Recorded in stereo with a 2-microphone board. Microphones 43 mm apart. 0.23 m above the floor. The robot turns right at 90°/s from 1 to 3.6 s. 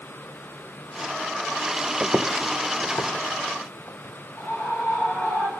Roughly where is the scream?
Left.